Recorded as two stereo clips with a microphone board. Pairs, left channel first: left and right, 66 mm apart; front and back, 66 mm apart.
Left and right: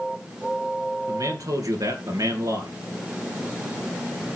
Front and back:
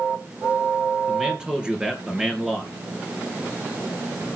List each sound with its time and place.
1.1 s a man speaking: 105° right, 3 m